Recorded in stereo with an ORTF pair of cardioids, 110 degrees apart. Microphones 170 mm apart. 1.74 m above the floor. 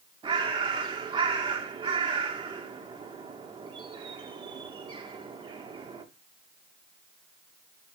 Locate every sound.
0.2 s a bird: 25° right, 2.5 m